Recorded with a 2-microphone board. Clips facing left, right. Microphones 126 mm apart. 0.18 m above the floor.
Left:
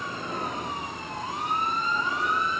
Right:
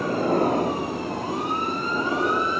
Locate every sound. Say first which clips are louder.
0.0 s a helicopter: right 12 dB; 50° right (ahead or behind); by 2.6 s 45° right (ahead or behind)